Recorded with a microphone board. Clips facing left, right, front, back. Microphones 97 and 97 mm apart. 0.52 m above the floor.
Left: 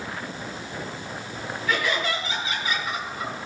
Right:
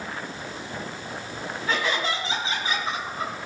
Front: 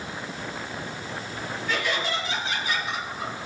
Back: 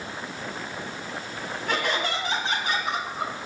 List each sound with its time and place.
1.7 s laughter: 150° right, 4.5 m